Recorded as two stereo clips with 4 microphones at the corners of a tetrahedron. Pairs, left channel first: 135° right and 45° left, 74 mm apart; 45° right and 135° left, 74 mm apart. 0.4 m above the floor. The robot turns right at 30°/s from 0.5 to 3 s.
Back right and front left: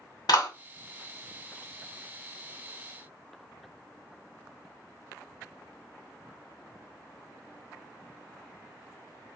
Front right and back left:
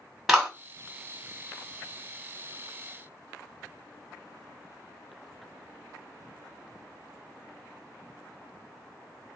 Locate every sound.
0.3 s a clap: 140° right, 1.6 m